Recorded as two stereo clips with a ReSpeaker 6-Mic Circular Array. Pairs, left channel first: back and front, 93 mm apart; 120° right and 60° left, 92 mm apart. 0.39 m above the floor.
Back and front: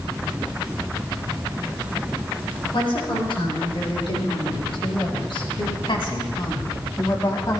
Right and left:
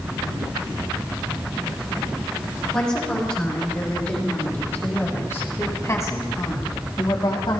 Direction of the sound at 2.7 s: 160° left.